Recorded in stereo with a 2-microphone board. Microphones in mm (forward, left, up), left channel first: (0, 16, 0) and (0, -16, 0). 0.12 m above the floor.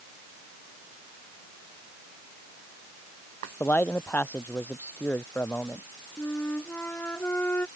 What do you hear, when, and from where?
3.6 s a man speaking: 70° left (ahead or behind)
6.2 s a flute: 80° left